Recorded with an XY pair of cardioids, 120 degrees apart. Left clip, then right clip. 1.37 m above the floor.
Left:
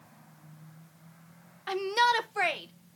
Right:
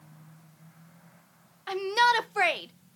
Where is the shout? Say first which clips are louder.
Right 2 dB; 5° left, 0.6 m; by 3.0 s 35° right, 1.1 m.